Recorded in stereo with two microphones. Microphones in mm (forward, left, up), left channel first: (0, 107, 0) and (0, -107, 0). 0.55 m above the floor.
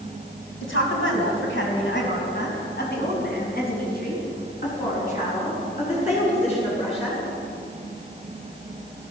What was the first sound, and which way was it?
A woman speaking, 80° left.